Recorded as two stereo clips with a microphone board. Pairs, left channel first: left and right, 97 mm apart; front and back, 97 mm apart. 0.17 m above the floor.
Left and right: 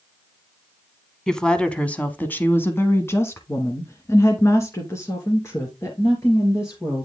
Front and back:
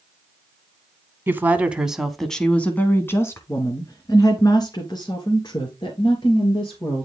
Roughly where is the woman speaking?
Behind.